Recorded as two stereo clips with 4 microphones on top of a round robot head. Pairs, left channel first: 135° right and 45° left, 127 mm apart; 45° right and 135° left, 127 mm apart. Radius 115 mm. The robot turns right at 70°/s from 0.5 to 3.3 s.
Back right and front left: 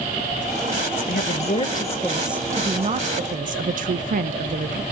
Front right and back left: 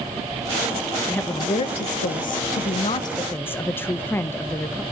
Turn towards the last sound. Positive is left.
turn(degrees=30)